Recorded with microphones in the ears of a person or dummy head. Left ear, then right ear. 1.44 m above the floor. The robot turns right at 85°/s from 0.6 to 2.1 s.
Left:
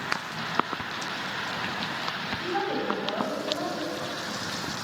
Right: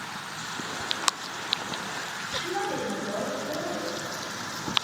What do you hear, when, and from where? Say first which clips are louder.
2.4 s a woman speaking: left 2 dB; 40° left (ahead or behind), 1.5 m